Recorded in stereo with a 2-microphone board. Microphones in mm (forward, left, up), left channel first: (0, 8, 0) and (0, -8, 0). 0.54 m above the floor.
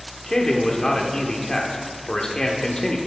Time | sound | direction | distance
0.3 | a man speaking | 45° left (ahead or behind) | 1.3 m